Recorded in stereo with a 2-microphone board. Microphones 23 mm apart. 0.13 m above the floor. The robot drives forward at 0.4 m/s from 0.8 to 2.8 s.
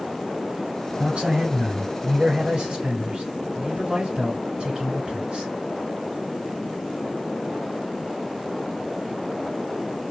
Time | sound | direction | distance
1.0 | a man speaking | 50° right (ahead or behind) | 2.5 m